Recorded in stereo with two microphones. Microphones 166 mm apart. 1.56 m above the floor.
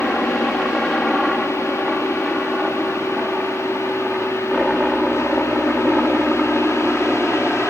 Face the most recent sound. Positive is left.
turn(degrees=-5)  # may be behind; listen again after turning